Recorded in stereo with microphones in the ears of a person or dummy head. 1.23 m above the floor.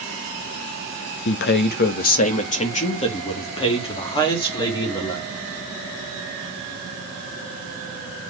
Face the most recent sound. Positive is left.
turn(degrees=15)  # may be behind; listen again after turning